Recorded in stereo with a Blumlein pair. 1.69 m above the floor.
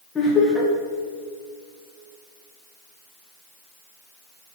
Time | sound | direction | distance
0.1 | laughter | 10° left | 3 m